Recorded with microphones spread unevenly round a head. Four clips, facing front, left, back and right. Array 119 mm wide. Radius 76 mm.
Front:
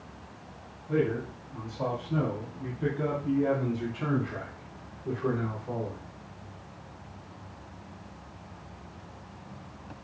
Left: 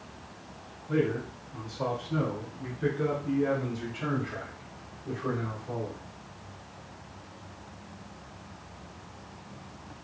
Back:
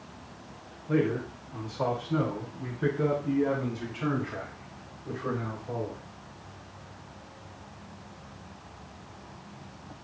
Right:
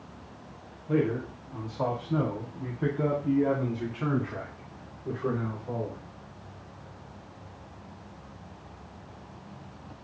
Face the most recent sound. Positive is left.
turn(degrees=-50)